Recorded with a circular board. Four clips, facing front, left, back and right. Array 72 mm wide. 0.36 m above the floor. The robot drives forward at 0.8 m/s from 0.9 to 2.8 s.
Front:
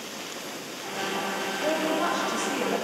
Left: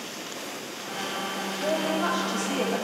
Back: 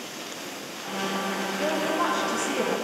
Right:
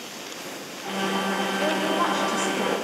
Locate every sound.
1.6 s a woman speaking: 115° right, 2 m; by 2.8 s 135° right, 2.5 m